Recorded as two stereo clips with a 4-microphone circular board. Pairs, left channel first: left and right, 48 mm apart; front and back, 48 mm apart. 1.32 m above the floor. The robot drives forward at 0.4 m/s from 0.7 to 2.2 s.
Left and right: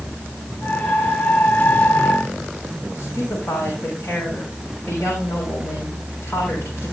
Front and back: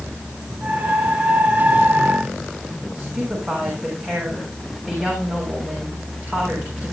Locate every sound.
3.0 s a woman speaking: 125° left, 6 m